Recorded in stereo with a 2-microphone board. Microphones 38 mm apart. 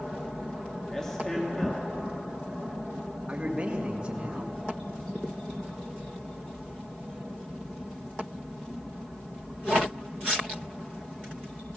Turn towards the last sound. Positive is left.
turn(degrees=-30)  # may be behind; listen again after turning